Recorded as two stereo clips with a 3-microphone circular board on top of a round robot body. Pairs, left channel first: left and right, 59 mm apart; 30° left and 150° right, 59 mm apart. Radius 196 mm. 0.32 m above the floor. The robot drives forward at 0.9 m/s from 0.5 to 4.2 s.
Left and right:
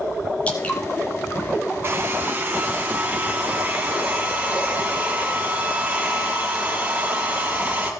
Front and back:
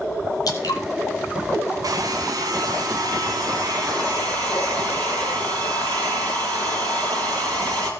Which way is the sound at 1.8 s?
140° right.